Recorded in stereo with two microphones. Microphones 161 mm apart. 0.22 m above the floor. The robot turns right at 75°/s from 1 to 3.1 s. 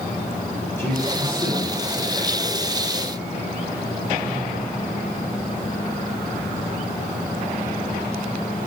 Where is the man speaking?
15° left, 2.5 m; by 2.7 s 145° left, 2.5 m.